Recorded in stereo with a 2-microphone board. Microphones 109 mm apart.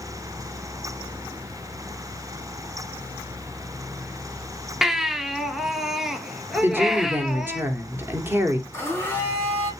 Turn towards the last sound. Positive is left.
turn(degrees=20)  # may be behind; listen again after turning